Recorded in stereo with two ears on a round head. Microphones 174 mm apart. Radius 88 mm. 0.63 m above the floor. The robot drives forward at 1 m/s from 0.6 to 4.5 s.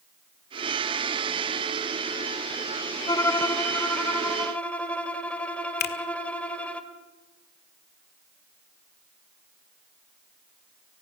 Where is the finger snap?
55° left (ahead or behind), 1.7 m.